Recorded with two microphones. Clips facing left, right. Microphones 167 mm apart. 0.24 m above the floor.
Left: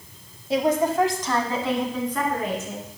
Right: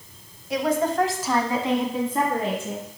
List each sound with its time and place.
0.5 s a woman speaking: 30° left (ahead or behind), 1.0 m; by 2.9 s 30° right (ahead or behind), 3 m